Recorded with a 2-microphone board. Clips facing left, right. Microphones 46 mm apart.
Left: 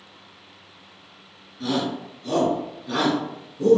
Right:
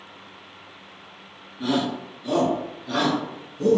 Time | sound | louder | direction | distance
1.6 | a shout | right 1 dB | 20° right (ahead or behind) | 1.5 m